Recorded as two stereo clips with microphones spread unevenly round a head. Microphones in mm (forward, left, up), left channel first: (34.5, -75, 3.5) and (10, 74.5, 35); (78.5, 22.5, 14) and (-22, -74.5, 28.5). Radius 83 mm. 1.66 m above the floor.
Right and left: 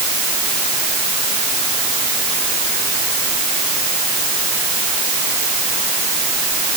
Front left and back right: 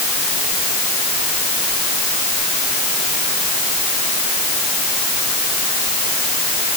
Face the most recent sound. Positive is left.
No sound to turn to.